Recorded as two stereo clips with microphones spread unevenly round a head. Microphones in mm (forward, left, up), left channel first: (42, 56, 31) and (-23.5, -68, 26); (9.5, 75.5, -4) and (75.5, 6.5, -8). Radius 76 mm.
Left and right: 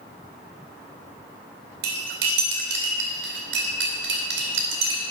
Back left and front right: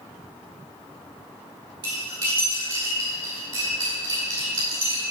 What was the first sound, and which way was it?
Cutlery clinking, 110° right.